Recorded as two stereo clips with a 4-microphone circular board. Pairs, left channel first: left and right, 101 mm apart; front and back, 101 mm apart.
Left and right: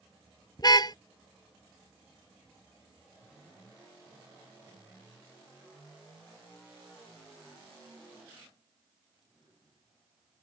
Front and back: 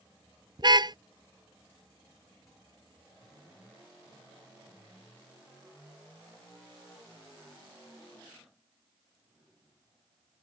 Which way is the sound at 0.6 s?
135° left.